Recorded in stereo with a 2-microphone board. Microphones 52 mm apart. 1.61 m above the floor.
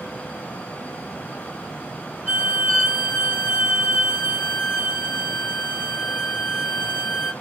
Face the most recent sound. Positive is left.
turn(degrees=25)  # may be behind; listen again after turning